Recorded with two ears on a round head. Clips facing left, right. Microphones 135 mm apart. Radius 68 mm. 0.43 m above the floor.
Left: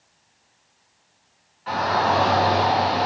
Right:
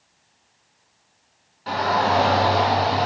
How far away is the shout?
About 3.5 m.